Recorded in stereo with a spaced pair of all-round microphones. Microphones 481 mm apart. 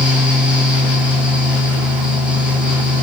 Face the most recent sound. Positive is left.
turn(degrees=0)  # may be behind; listen again after turning